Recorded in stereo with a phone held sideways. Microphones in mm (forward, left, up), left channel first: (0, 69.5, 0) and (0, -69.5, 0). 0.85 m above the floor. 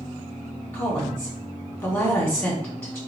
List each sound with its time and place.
0.7 s a woman speaking: 15° left (ahead or behind), 2 m